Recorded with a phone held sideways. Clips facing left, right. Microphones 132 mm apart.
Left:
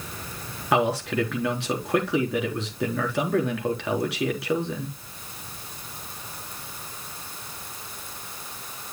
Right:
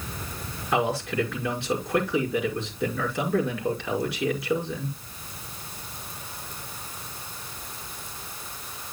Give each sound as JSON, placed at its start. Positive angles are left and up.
{"t": 0.7, "sound": "a man speaking", "side_deg": 80, "distance_m": 3.5}